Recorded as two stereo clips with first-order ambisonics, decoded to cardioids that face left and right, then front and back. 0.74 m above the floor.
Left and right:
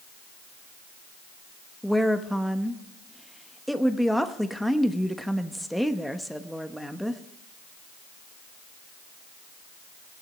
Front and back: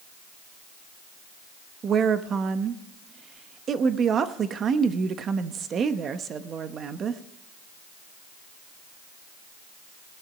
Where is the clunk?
I don't hear a clunk.